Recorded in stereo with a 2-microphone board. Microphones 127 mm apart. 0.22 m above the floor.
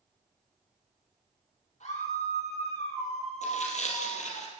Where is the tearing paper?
65° left (ahead or behind), 4.5 m.